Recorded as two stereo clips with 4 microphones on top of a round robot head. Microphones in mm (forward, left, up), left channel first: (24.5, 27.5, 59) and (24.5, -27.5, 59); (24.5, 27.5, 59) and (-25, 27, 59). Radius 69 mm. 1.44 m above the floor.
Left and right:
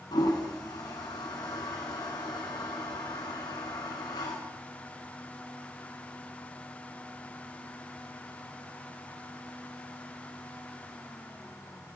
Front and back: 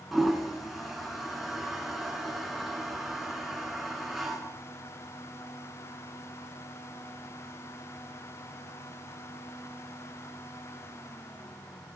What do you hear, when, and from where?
0.1 s a toilet flushing: 95° left, 3 m